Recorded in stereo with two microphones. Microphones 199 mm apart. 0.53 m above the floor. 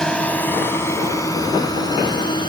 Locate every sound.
0.0 s a drone: 5° left (ahead or behind); by 2.5 s 25° left (ahead or behind)